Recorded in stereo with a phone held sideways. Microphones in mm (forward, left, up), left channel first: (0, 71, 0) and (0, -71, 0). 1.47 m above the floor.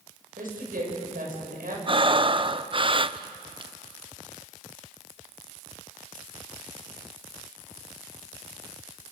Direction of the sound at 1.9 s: 35° right (ahead or behind).